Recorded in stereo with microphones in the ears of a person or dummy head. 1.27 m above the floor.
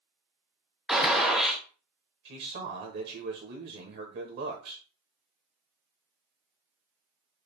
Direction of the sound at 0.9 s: Centre (ahead or behind).